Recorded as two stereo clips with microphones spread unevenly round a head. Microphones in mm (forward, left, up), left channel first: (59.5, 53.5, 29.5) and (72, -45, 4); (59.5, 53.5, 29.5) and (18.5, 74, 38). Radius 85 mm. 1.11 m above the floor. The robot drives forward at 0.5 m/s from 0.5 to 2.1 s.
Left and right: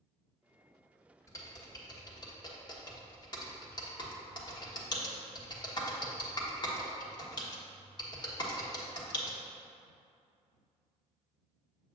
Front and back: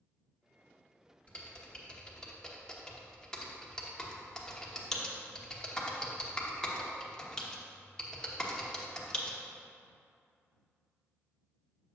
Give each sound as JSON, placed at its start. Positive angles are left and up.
{"t": 1.3, "sound": "typing on a keyboard", "azimuth_deg": 35, "distance_m": 1.6}